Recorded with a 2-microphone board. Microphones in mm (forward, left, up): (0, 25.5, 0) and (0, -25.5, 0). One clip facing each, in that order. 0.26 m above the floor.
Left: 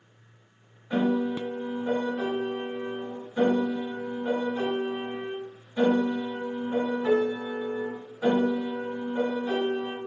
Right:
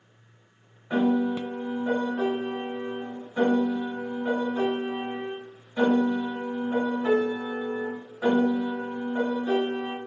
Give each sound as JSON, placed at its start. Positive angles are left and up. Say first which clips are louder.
{"t": 0.9, "sound": "a piano", "louder": "right 2 dB", "side_deg": -20, "distance_m": 1.3}